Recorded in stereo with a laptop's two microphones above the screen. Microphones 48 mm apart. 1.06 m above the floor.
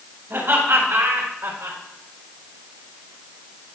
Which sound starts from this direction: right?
Laughter, at 0.3 s.